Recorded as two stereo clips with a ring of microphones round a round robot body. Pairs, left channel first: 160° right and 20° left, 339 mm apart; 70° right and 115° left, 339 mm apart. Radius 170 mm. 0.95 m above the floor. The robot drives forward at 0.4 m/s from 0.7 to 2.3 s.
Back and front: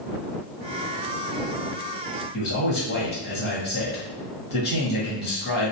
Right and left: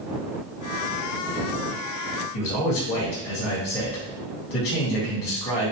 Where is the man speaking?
95° right, 1.4 m.